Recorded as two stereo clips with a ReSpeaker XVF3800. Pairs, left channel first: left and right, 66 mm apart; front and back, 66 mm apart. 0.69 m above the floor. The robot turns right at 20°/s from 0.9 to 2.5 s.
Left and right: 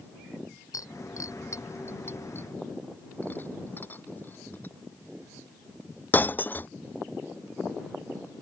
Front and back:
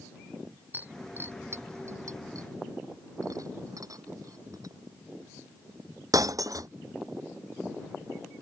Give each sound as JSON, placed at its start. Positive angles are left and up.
{"t": 0.7, "sound": "breaking glass", "azimuth_deg": 120}